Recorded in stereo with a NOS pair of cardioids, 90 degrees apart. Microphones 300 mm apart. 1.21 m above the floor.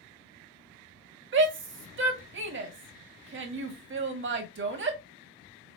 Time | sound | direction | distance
1.3 | a shout | 40° right | 1.7 m